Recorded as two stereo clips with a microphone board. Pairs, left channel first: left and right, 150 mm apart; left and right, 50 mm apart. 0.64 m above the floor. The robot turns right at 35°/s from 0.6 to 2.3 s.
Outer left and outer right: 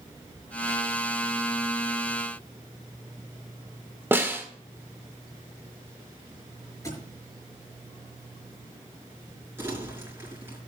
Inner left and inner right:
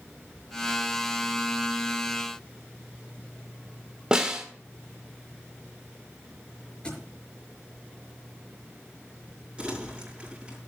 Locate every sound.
4.1 s a snare drum: 15° right (ahead or behind), 1.8 m
6.8 s a thud: 20° left (ahead or behind), 5.5 m
9.6 s crumpling: 15° right (ahead or behind), 5.5 m